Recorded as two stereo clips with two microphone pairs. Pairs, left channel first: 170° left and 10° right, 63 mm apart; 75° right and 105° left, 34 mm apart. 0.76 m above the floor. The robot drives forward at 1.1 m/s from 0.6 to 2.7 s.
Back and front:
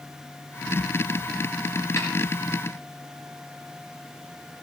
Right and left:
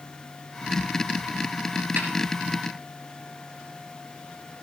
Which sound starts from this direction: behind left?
A snare drum, at 2.0 s.